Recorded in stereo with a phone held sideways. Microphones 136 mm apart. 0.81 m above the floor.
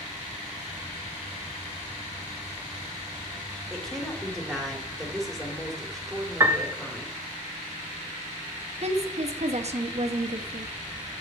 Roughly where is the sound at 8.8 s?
Right.